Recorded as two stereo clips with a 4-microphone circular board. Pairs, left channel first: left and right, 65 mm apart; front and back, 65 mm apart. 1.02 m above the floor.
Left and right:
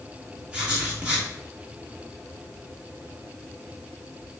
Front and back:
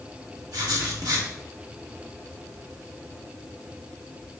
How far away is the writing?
About 1.2 m.